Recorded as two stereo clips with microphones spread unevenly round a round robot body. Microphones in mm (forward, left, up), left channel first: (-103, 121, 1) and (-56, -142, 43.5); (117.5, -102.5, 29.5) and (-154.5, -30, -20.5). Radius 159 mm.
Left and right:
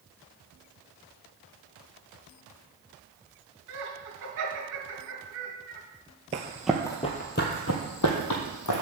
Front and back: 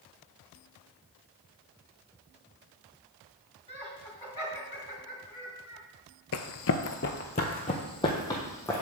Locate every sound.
3.7 s laughter: 100° right, 2 m
6.3 s running footsteps: 20° right, 0.6 m; by 8.8 s 65° left, 1.3 m